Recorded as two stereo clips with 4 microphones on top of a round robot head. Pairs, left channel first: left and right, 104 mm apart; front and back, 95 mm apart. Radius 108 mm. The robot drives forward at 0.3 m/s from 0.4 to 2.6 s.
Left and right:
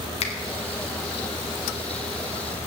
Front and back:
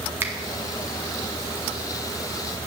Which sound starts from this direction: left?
A finger snap, at 0.2 s.